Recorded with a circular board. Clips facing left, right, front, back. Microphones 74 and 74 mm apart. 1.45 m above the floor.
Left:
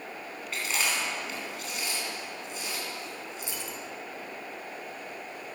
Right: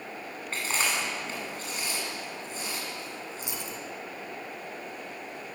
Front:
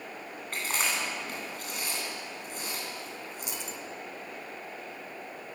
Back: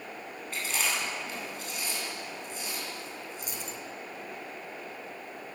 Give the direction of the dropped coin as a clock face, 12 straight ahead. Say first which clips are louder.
Right 1 dB, even; 5 o'clock.